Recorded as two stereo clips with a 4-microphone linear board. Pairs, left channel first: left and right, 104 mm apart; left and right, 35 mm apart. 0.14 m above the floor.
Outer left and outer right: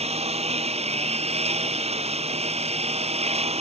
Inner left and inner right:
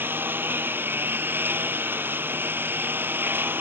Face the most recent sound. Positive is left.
turn(degrees=-80)